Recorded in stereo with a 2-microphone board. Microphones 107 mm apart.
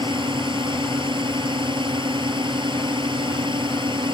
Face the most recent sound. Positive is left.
turn(degrees=-50)  # may be behind; listen again after turning